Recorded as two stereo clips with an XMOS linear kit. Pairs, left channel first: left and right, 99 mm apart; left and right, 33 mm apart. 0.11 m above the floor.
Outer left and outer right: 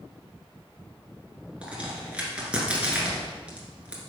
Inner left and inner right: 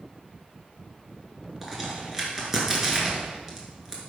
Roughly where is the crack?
Centre.